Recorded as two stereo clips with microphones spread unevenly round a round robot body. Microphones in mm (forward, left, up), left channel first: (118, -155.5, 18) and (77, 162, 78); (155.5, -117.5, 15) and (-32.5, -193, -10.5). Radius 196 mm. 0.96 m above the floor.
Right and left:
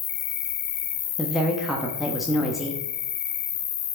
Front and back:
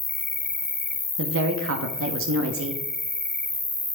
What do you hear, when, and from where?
0.0 s an insect: 55° right, 1.2 m
1.2 s a woman speaking: 170° right, 1.0 m